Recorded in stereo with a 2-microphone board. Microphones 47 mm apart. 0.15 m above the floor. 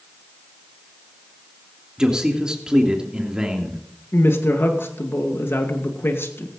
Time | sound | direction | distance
2.0 | a man speaking | 15° right (ahead or behind) | 3 m
4.1 | a woman speaking | 60° left (ahead or behind) | 2.5 m